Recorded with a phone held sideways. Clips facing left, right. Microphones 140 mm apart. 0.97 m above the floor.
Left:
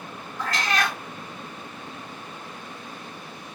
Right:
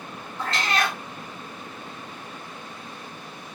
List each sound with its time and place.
0.4 s a cat meowing: 25° right (ahead or behind), 1.3 m